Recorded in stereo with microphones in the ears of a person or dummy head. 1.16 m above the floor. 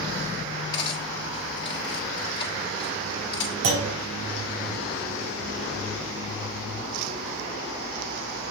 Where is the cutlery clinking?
25° left (ahead or behind), 1.5 m.